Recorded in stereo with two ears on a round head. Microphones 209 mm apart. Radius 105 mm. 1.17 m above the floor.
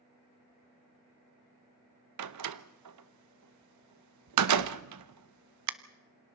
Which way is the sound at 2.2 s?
80° right.